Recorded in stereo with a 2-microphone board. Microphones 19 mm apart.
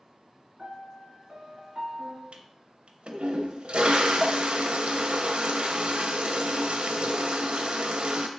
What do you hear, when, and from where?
0.6 s a piano: 50° right (ahead or behind), 1.6 m
2.3 s a toilet flushing: 75° right (ahead or behind), 0.5 m